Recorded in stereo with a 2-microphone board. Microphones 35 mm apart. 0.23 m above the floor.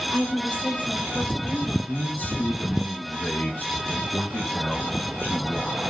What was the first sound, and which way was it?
A woman speaking, 75° left (ahead or behind).